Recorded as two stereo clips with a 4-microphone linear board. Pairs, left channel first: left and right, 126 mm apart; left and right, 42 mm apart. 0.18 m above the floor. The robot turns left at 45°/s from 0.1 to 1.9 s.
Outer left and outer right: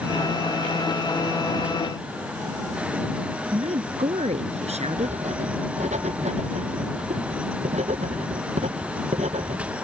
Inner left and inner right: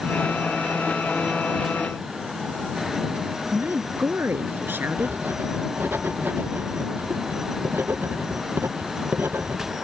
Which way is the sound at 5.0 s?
60° right (ahead or behind).